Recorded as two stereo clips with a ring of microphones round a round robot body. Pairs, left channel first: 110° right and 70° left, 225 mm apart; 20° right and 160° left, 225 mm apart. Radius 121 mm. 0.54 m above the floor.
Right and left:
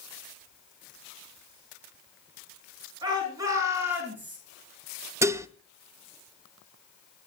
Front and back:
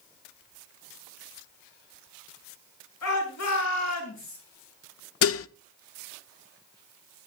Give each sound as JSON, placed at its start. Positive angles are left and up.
{"t": 3.0, "sound": "a shout", "azimuth_deg": -5, "distance_m": 9.5}
{"t": 5.2, "sound": "dishes clattering", "azimuth_deg": -10, "distance_m": 0.6}